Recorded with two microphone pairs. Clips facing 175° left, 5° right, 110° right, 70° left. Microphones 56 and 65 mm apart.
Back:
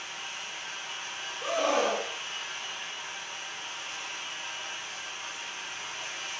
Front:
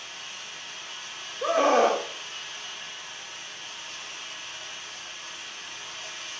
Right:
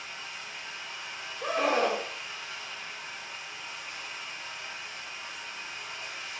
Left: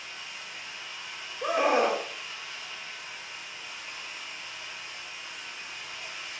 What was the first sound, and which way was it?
Running water, 170° right.